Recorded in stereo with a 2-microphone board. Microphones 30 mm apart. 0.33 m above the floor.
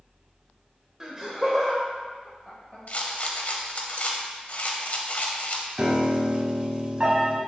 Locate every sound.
1.0 s laughter: 20° right (ahead or behind), 0.9 m; by 2.8 s 5° left (ahead or behind), 1.1 m
2.9 s a rattle: 50° left (ahead or behind), 0.6 m
5.8 s a piano: 30° right (ahead or behind), 0.6 m